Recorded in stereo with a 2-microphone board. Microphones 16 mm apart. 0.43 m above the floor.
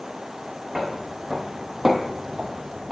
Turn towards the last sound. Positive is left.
turn(degrees=-35)  # may be behind; listen again after turning